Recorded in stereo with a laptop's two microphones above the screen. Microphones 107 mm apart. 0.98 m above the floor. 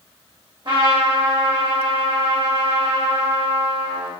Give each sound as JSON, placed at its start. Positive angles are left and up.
{"t": 0.7, "sound": "a trumpet", "side_deg": -45, "distance_m": 1.2}